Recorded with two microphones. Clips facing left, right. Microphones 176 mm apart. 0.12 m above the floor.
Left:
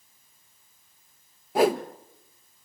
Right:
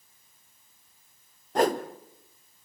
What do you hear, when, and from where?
1.6 s a whoosh: 10° left (ahead or behind), 1.2 m